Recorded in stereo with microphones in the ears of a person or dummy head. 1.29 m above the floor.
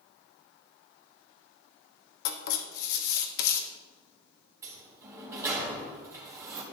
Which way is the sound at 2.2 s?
70° left (ahead or behind).